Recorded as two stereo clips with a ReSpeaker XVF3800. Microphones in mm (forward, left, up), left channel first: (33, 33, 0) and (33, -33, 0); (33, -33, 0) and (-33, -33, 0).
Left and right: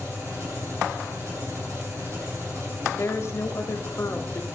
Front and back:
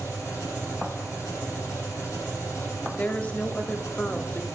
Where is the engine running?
40° right, 7 m.